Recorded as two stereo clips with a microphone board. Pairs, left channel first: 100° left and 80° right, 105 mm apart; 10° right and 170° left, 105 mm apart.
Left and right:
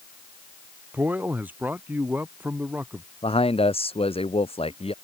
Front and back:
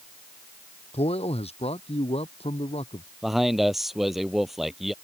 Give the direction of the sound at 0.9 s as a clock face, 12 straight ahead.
12 o'clock.